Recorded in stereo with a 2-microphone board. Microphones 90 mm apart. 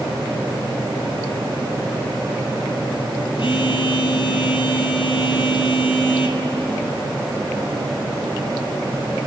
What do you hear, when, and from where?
3.4 s a phone buzzing: 75° left (ahead or behind), 1.3 m